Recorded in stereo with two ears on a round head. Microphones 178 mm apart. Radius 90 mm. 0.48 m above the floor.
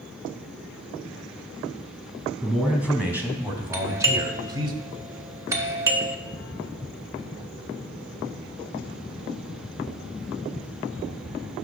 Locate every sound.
2.4 s a man speaking: 5° right (ahead or behind), 3.5 m; by 4.7 s 25° right (ahead or behind), 1.8 m
3.7 s a doorbell: 15° right (ahead or behind), 1.2 m